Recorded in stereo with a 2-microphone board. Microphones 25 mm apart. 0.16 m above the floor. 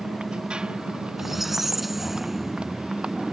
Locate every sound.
0.0 s a motorcycle: 35° right (ahead or behind)
1.2 s a squeak: 10° right (ahead or behind)